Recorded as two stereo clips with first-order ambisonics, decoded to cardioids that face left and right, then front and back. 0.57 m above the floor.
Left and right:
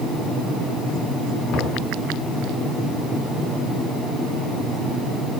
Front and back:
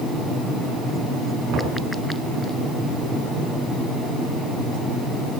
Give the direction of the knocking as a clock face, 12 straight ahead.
8 o'clock.